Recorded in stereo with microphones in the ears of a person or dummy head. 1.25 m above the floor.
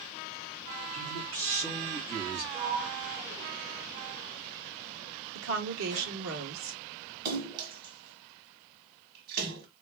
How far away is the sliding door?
About 1.2 m.